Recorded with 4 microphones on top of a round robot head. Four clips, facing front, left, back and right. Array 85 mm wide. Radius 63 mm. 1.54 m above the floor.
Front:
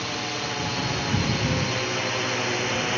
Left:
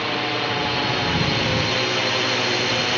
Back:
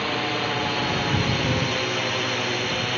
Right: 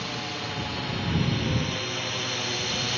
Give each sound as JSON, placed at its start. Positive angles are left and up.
{"t": 0.0, "sound": "a drone", "azimuth_deg": 125}